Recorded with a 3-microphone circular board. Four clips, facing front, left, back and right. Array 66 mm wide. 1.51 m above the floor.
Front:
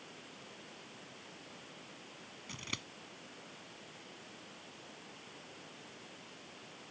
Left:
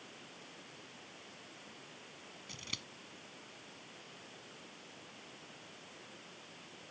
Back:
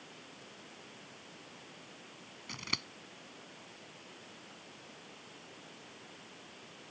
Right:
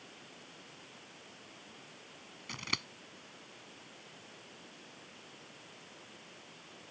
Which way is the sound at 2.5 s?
110° right.